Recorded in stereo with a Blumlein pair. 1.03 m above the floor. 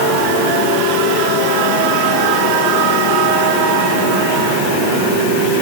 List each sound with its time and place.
Only background noise.